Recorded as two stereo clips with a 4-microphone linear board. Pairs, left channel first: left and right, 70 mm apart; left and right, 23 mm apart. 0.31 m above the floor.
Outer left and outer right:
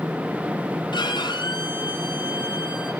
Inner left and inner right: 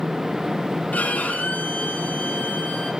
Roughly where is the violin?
Left.